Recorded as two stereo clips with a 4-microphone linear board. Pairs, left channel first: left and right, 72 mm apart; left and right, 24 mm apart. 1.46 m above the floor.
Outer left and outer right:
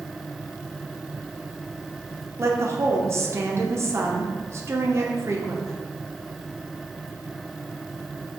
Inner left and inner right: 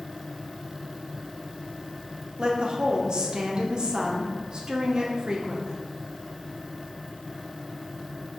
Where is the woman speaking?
40° right (ahead or behind), 0.5 m.